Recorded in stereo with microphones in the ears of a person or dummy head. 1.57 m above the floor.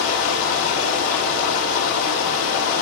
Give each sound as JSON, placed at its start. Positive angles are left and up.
{"t": 0.0, "sound": "running water", "side_deg": 75, "distance_m": 3.0}